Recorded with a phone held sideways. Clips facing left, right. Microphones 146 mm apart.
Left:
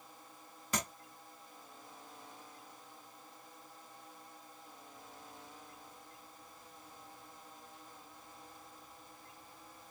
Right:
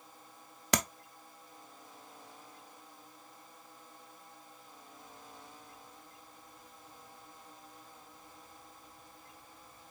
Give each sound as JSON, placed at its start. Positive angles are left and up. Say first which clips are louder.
{"t": 0.7, "sound": "tapping", "louder": "right 6 dB", "side_deg": -80, "distance_m": 0.7}